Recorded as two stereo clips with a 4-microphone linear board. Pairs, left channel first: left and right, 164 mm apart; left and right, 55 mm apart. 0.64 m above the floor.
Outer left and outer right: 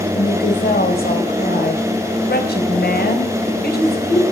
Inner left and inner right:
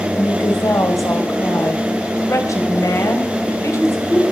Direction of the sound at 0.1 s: 75° left (ahead or behind).